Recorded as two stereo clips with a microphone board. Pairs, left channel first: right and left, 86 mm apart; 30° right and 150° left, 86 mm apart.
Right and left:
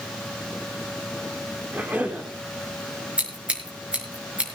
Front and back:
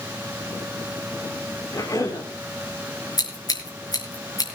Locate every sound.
1.7 s a cough: 15° left, 4 m
3.2 s scissors: 10° left, 4.5 m